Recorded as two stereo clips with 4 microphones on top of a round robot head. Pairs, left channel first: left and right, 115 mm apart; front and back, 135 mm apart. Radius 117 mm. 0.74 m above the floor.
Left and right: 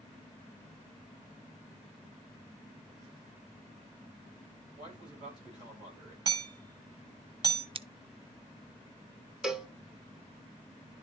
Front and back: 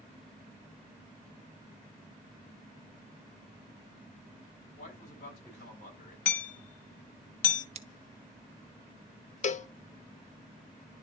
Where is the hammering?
25° right, 1.2 m.